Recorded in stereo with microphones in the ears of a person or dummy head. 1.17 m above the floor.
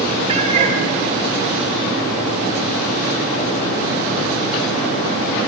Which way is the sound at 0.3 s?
30° right (ahead or behind).